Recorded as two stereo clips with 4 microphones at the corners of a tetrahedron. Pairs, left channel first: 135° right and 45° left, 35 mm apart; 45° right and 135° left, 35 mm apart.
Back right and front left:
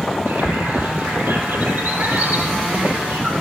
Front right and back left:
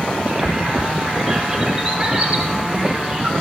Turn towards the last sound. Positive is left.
turn(degrees=55)